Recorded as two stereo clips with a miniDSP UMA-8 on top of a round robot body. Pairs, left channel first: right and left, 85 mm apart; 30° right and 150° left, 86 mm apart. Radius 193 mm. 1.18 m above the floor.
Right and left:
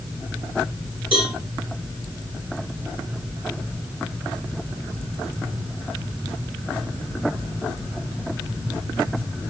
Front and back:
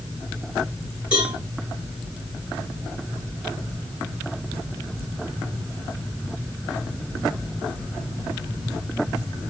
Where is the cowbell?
70° left, 4.5 m.